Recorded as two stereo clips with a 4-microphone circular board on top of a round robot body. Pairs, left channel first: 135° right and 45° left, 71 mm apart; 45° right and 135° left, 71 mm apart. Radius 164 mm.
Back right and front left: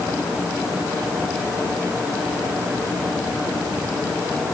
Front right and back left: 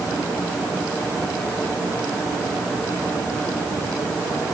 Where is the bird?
No bird in this recording.